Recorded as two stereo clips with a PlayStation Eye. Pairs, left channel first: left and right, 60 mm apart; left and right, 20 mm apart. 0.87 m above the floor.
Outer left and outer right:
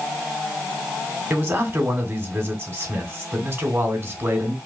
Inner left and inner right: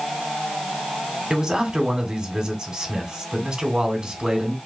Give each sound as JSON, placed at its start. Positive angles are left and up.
{"t": 1.3, "sound": "a man speaking", "side_deg": -45, "distance_m": 2.5}